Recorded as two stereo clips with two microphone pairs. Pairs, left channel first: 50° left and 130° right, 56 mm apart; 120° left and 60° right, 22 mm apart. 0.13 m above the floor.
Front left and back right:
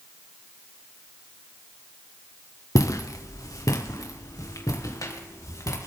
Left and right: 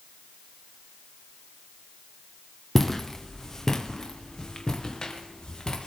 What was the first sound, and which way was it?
Footsteps, 40° left.